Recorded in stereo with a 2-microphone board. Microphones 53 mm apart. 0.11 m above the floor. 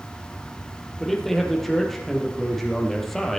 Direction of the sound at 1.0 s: 5° left (ahead or behind).